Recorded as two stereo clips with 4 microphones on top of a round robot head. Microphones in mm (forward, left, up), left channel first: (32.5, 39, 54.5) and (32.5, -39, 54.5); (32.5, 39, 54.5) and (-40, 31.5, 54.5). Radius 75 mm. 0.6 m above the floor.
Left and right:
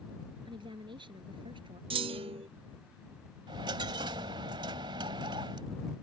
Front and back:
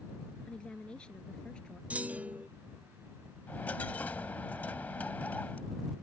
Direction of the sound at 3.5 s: 70° right.